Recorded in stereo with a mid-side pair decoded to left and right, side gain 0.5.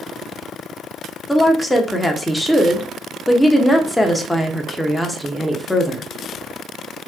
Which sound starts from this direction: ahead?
A woman speaking, at 1.3 s.